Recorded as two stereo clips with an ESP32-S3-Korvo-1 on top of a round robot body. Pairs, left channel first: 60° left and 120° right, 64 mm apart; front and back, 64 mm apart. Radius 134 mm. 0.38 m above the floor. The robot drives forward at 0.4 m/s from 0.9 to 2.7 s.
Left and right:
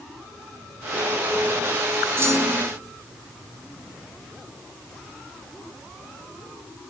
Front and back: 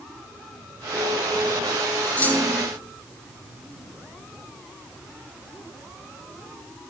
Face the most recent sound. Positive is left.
turn(degrees=-85)